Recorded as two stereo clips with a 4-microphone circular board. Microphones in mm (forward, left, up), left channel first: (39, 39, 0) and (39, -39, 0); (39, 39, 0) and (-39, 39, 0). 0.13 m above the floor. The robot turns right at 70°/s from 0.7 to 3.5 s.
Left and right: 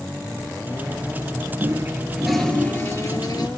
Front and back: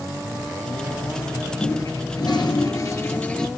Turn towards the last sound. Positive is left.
turn(degrees=85)